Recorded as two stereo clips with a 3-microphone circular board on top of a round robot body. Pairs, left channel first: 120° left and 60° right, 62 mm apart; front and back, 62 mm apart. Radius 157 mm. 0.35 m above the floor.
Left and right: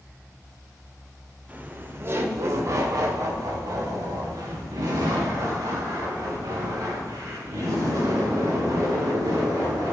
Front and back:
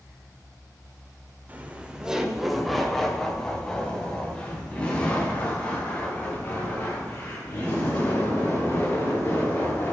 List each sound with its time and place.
1.5 s laughter: 120° right, 1.4 m; by 9.9 s 60° right, 7 m